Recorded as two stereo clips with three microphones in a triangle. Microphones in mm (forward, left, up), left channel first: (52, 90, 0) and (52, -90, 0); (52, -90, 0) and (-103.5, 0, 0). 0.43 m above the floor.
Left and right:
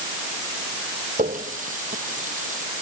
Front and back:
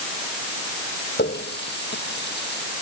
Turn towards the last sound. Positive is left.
turn(degrees=-45)